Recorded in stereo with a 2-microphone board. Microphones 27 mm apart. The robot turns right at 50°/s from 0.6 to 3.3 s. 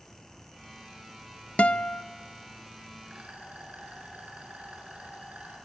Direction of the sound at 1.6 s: 60° left (ahead or behind).